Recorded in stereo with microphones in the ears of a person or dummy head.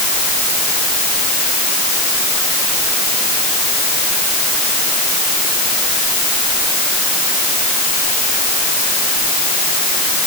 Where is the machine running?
No machine running in this recording.